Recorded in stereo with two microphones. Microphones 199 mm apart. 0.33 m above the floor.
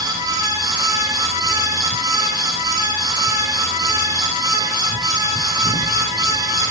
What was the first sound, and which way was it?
Only background noise.